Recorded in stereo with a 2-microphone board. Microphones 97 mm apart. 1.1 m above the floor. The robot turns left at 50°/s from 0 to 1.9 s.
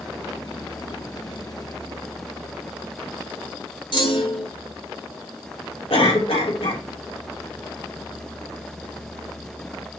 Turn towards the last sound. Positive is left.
turn(degrees=80)